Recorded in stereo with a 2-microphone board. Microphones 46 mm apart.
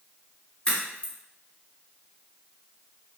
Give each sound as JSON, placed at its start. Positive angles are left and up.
{"t": 0.7, "sound": "a crack", "side_deg": 20, "distance_m": 1.7}